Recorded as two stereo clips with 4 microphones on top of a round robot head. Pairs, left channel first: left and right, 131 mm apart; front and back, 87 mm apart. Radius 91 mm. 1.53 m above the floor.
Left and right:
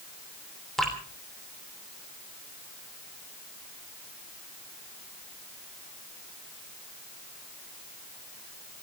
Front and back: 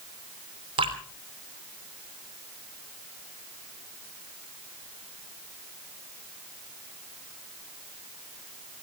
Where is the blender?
No blender in this recording.